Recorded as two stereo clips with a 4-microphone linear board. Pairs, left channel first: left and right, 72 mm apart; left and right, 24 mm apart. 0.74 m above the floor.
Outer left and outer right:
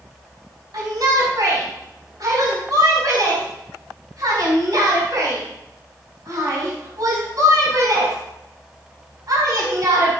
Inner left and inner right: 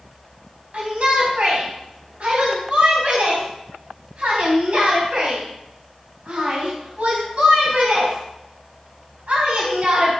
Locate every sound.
0.7 s a shout: 60° right (ahead or behind), 4 m